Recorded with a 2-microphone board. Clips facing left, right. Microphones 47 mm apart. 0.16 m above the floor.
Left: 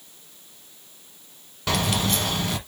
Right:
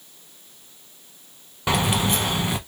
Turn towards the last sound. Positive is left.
turn(degrees=-20)  # may be behind; listen again after turning